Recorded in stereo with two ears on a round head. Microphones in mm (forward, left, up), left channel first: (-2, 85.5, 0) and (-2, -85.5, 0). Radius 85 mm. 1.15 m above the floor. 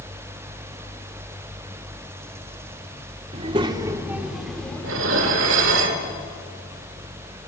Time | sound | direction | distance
3.3 | a child speaking | 35° right (ahead or behind) | 1.6 m
4.8 | dishes clattering | 75° right (ahead or behind) | 2.5 m